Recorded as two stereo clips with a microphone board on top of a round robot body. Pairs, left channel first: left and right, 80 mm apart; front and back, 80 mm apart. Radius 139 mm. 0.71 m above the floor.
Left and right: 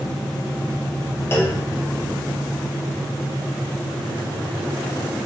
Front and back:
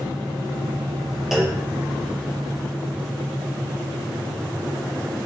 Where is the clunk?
95° left, 1.0 m.